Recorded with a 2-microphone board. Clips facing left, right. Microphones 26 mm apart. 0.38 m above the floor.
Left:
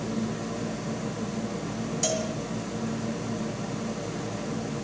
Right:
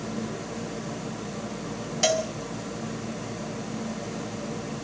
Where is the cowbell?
40° right (ahead or behind), 1.9 m.